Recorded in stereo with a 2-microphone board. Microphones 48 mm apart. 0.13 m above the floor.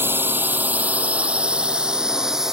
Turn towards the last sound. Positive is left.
turn(degrees=-10)  # may be behind; listen again after turning